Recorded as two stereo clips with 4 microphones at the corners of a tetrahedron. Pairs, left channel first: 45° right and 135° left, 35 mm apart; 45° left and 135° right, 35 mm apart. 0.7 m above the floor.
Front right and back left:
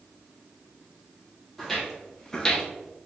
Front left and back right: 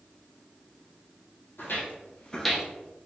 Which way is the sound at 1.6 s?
40° left.